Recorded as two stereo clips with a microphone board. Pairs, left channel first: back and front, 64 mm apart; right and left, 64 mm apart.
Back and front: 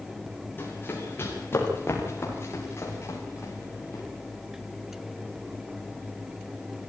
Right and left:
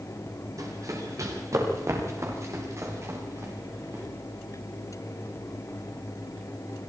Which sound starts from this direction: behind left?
Running footsteps, at 0.6 s.